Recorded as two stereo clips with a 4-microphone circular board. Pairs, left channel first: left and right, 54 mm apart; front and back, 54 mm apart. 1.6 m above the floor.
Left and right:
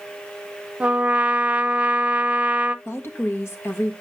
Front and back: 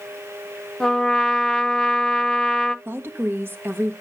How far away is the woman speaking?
About 1.5 m.